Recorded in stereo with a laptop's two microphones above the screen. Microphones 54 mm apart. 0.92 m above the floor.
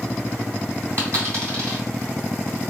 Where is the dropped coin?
60° right (ahead or behind), 1.9 m.